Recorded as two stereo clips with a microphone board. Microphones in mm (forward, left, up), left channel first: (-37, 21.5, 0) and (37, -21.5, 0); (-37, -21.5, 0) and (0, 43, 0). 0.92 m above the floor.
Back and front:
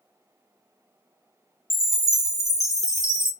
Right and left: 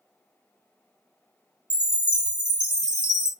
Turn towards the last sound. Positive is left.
turn(degrees=55)